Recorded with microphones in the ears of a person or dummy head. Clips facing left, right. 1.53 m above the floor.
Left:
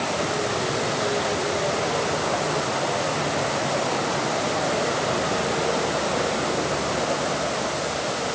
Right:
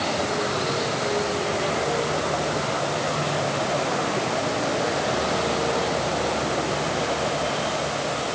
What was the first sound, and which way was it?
Only background noise.